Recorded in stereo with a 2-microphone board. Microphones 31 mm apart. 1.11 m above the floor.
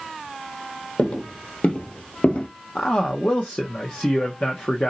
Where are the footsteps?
45° left (ahead or behind), 2 m; by 2.5 s 40° left (ahead or behind), 1.5 m.